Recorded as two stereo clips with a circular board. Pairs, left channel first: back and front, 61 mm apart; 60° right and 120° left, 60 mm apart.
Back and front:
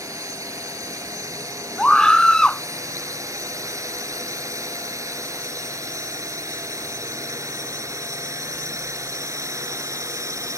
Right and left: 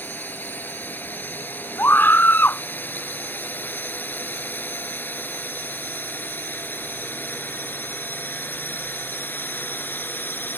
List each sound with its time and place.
0.0 s a drone: 5° right; by 10.6 s 10° right
1.8 s a scream: 105° right